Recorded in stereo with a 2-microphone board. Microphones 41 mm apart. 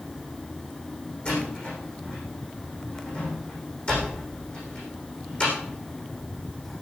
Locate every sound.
1.2 s a door slam: 30° left (ahead or behind), 7.5 m